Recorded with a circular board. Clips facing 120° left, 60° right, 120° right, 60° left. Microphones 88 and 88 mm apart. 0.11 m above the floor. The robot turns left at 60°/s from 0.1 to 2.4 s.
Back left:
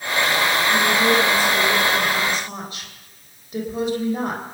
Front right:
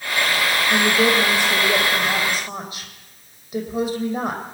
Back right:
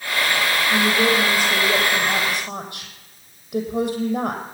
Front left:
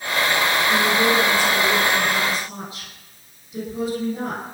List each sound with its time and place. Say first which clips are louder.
0.7 s a woman speaking: front right 1 dB, back right 1 dB; 40° right, 5 m; by 4.4 s 140° right, 5 m